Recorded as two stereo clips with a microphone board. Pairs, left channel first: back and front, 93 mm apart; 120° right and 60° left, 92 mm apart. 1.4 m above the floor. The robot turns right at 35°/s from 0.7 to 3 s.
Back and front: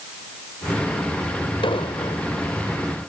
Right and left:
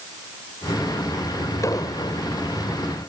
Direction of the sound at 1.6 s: 170° right.